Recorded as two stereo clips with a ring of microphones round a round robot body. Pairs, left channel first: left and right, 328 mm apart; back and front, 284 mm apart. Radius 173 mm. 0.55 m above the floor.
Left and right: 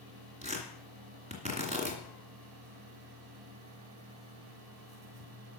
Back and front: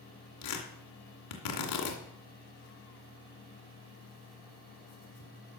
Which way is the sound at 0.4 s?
160° right.